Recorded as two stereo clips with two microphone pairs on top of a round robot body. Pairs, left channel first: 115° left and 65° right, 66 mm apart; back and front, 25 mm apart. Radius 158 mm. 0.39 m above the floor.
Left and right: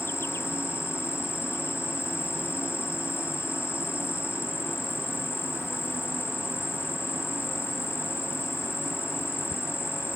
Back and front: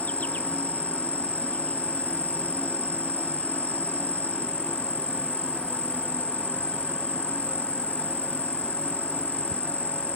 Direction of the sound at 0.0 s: 170° left.